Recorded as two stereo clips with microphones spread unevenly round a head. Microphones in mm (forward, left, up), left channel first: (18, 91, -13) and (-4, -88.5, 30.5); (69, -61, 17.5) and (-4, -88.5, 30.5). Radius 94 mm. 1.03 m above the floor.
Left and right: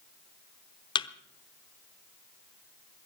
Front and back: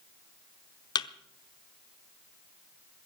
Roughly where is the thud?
Ahead.